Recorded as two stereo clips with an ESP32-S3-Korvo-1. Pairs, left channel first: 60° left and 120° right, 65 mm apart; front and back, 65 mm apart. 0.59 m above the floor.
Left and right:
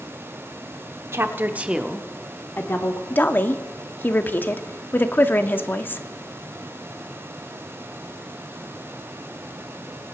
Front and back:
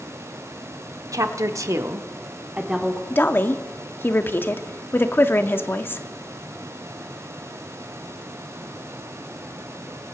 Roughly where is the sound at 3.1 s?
Ahead left.